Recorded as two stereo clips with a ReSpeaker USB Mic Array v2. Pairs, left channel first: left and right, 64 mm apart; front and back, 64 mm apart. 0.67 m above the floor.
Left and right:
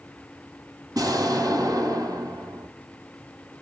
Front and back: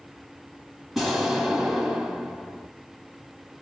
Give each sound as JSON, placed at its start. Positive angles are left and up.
{"t": 0.9, "sound": "an explosion", "azimuth_deg": -95, "distance_m": 1.2}